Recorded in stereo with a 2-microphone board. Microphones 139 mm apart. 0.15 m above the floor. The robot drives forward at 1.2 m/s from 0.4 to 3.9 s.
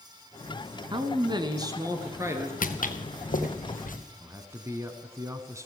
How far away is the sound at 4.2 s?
About 1.1 m.